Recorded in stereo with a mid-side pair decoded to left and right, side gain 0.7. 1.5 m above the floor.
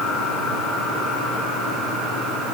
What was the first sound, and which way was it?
Only background noise.